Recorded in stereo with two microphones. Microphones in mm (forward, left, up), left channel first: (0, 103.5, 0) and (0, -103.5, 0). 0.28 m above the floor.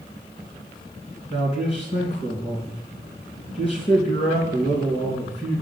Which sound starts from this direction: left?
A man speaking, at 1.3 s.